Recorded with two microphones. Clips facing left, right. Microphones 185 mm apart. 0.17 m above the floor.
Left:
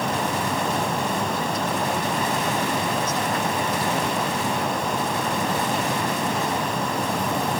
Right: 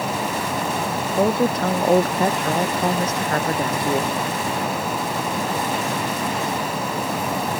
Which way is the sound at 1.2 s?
65° right (ahead or behind).